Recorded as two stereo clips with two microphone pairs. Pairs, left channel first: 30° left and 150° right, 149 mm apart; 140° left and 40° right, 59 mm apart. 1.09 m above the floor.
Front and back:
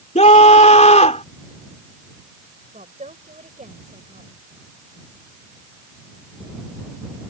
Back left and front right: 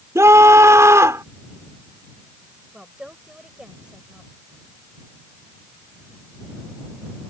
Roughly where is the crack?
I don't hear a crack.